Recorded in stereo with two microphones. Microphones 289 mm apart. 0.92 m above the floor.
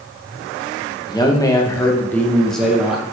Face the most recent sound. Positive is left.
turn(degrees=-5)  # may be behind; listen again after turning